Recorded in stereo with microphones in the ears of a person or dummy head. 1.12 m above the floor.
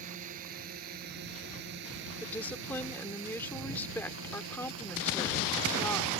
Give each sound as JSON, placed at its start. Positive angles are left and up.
{"t": 0.0, "sound": "a drone", "side_deg": -50}
{"t": 2.2, "sound": "a woman speaking", "side_deg": 5}